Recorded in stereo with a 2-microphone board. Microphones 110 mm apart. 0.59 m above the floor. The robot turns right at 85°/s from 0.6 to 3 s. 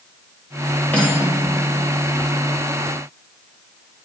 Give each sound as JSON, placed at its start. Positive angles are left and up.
{"t": 0.9, "sound": "cutlery clinking", "azimuth_deg": 165, "distance_m": 7.5}